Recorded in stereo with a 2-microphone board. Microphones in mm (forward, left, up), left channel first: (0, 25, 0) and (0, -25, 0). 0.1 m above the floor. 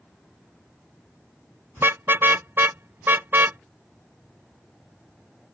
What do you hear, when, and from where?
1.8 s a car horn: 50° right (ahead or behind); by 3.6 s 45° right (ahead or behind)